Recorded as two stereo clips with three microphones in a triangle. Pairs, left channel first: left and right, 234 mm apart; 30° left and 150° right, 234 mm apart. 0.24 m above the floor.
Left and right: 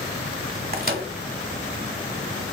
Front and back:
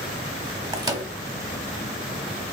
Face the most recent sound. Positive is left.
turn(degrees=-85)